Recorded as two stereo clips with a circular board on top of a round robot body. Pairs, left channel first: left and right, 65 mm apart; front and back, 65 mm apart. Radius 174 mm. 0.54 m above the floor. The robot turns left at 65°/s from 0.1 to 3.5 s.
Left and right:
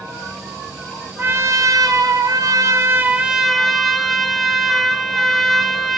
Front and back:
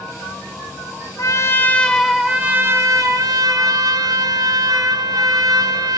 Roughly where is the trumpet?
Ahead right.